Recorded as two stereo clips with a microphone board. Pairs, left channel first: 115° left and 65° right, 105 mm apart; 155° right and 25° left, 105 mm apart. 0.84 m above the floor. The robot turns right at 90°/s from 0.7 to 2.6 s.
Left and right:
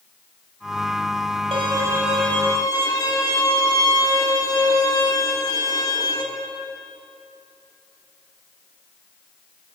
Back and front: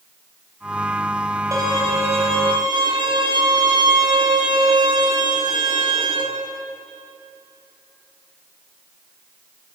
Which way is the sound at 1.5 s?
35° right.